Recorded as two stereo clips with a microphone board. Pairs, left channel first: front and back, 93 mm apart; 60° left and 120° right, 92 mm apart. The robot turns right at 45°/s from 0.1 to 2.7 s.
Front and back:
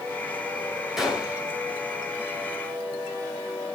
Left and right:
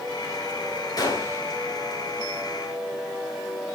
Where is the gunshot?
95° left, 2.5 m; by 1.4 s 115° left, 2.5 m.